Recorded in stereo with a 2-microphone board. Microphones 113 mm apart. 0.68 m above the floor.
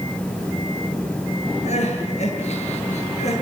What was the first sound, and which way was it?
Crying, 70° left (ahead or behind).